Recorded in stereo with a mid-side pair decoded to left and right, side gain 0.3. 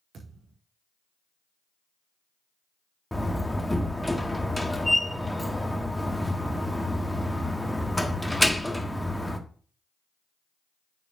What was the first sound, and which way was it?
A thud, 70° right.